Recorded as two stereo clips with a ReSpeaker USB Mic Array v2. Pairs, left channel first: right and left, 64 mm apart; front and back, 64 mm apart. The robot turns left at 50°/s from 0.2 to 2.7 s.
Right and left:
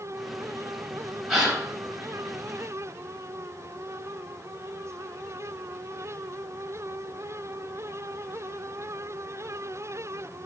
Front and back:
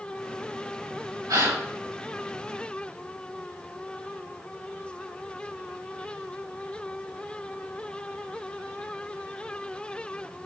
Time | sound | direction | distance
1.3 | a gasp | straight behind | 3.5 m